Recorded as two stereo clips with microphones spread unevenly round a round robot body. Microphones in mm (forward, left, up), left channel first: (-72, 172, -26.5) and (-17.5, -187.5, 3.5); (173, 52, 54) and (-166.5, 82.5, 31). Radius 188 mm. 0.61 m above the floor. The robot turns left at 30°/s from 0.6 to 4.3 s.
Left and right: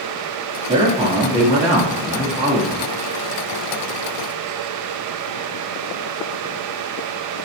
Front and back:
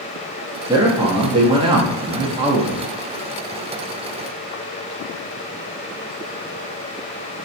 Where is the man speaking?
135° right, 0.8 m; by 2.9 s 160° left, 0.8 m.